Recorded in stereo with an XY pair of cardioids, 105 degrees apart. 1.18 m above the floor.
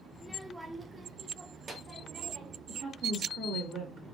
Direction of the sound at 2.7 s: 65° right.